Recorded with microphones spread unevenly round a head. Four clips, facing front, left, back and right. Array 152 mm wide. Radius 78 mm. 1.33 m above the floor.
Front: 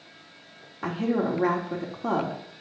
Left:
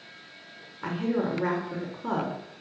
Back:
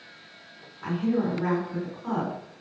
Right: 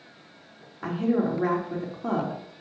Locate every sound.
0.8 s a woman speaking: 20° right, 3.5 m